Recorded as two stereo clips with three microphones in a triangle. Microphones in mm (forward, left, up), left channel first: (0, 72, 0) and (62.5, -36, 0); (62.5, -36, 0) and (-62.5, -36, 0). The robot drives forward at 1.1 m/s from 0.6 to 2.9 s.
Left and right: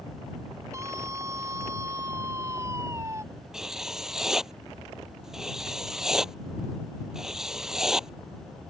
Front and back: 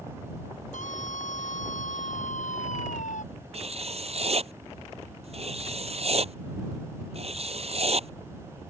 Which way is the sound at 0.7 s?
5° left.